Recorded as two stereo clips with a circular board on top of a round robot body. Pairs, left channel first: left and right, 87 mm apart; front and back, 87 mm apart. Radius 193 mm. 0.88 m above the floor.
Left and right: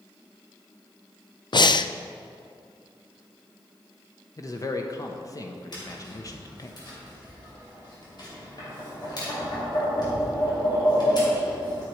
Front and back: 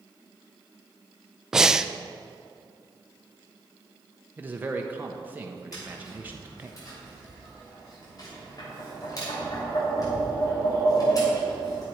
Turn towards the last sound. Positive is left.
turn(degrees=50)